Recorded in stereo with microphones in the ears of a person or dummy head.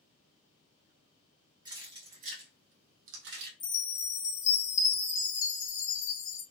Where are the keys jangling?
20° right (ahead or behind), 1.0 m; by 3.5 s 60° right (ahead or behind), 0.9 m.